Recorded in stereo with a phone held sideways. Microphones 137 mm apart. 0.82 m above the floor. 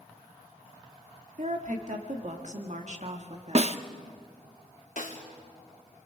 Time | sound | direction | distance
1.4 | a woman speaking | 65° right (ahead or behind) | 2 m
3.5 | a snare drum | 50° right (ahead or behind) | 0.7 m
5.0 | a snare drum | 70° left (ahead or behind) | 2.5 m